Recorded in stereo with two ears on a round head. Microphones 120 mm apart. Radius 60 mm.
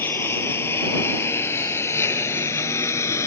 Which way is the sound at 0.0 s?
15° left (ahead or behind).